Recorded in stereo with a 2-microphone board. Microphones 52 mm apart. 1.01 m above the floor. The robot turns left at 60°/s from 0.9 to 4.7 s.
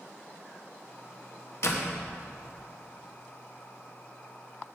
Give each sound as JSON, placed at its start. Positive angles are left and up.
{"t": 1.6, "sound": "a door slam", "side_deg": 60, "distance_m": 1.1}